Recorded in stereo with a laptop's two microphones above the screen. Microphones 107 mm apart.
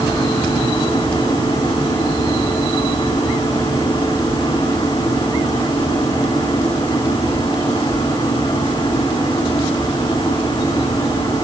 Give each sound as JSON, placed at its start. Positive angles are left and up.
{"t": 0.0, "sound": "a machine running", "side_deg": 55, "distance_m": 8.5}